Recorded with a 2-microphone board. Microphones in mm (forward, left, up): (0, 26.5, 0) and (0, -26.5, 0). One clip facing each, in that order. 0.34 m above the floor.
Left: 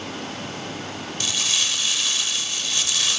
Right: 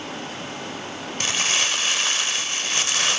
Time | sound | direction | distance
1.2 | crumpling | 40° right (ahead or behind) | 0.6 m